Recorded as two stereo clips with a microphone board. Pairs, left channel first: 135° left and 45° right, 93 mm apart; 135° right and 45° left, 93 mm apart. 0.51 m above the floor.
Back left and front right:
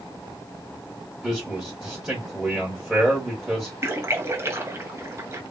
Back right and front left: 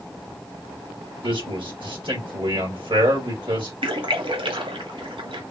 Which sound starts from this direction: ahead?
A splash, at 3.8 s.